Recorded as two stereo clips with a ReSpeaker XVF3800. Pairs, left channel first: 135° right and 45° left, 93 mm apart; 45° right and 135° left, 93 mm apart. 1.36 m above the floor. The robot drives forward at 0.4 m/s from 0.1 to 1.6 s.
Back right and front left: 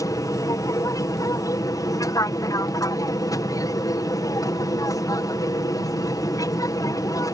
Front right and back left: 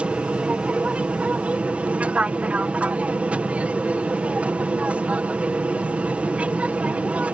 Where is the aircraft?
155° right.